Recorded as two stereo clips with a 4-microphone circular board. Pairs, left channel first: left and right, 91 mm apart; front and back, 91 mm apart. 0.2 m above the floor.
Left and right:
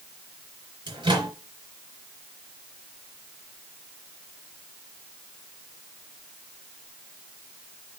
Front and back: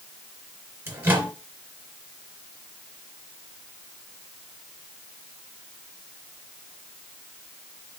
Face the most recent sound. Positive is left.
turn(degrees=-120)